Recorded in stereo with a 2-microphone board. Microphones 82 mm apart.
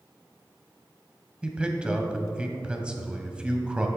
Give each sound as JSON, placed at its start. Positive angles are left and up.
{"t": 1.4, "sound": "a man speaking", "side_deg": -15, "distance_m": 1.5}